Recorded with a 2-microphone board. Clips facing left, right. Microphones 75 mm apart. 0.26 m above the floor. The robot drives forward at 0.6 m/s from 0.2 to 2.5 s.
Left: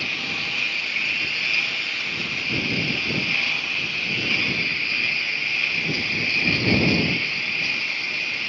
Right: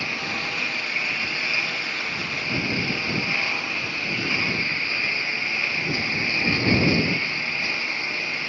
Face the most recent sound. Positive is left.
turn(degrees=-20)  # may be behind; listen again after turning